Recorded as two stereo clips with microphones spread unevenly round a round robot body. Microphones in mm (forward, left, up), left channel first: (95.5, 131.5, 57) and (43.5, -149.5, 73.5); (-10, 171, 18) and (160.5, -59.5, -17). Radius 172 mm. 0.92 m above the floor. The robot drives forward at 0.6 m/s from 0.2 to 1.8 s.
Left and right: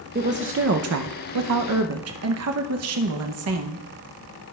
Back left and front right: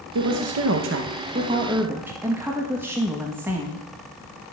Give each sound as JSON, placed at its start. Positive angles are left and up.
{"t": 0.1, "sound": "a woman speaking", "azimuth_deg": -45, "distance_m": 0.8}